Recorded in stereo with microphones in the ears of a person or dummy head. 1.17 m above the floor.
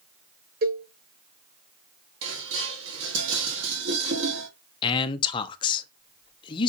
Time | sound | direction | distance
0.6 | a cowbell | 45° right (ahead or behind) | 0.7 m
2.2 | dishes clattering | 70° right (ahead or behind) | 1.3 m
4.8 | a man speaking | 25° left (ahead or behind) | 0.6 m